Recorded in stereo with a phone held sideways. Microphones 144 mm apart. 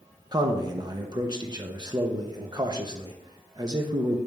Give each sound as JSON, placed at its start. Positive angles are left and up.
{"t": 0.3, "sound": "a man speaking", "side_deg": -30, "distance_m": 0.8}